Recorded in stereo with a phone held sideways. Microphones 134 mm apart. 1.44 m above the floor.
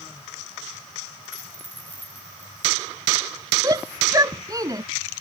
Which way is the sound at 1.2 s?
65° right (ahead or behind).